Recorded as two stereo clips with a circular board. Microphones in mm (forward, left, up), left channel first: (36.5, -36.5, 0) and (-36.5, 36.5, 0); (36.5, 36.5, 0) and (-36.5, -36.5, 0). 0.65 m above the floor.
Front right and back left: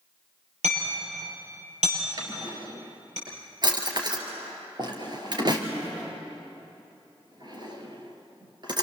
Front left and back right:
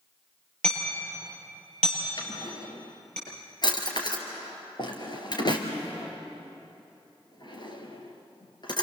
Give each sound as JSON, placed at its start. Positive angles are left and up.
{"t": 0.6, "sound": "hammering", "azimuth_deg": 125, "distance_m": 8.5}
{"t": 2.2, "sound": "a drawer", "azimuth_deg": 90, "distance_m": 3.0}